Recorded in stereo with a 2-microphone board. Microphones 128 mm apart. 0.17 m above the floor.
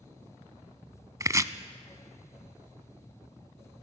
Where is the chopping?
25° right (ahead or behind), 0.6 m.